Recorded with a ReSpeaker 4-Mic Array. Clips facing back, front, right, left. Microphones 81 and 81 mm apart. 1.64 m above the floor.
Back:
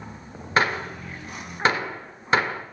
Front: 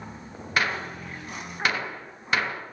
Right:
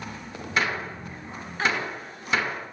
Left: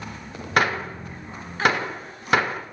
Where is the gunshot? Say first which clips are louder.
Back 4 dB, left 5 dB; 120° left, 1.2 m.